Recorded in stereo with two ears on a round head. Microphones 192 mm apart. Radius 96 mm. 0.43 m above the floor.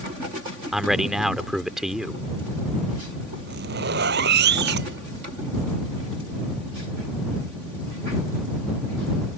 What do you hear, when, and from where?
0.7 s a man speaking: centre (ahead or behind)
3.5 s a zipper: 50° right (ahead or behind)